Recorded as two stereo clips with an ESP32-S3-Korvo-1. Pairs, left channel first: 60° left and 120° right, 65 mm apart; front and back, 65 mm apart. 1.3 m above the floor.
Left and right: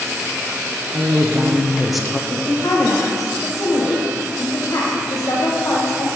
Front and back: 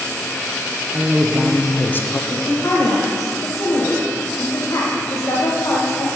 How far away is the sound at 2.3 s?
About 1.4 m.